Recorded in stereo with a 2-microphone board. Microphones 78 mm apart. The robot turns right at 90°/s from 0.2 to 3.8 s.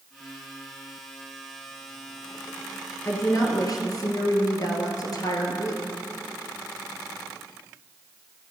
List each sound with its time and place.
3.0 s a woman speaking: 40° left, 2 m; by 5.8 s 105° left, 2 m